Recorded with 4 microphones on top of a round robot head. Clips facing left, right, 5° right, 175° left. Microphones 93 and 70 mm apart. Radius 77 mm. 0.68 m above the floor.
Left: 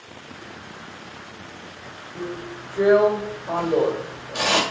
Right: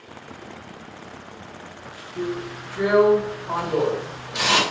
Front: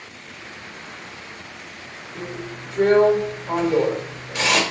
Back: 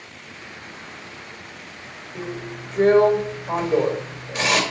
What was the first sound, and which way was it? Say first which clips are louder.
A drill: right 4 dB, back 1 dB; 90° left.